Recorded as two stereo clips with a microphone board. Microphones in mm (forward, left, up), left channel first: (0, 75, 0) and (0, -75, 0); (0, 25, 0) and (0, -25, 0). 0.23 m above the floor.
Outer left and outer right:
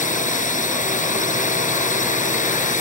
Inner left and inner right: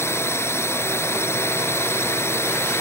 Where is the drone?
55° left (ahead or behind).